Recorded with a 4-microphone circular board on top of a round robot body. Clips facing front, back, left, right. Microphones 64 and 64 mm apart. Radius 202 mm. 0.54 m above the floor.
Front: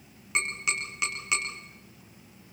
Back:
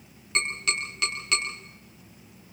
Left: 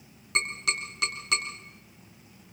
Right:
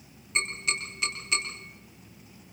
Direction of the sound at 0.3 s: 70° left.